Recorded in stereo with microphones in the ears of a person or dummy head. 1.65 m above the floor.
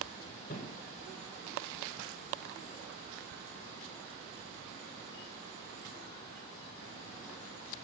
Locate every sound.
0.5 s a thud: 20° left (ahead or behind), 1.6 m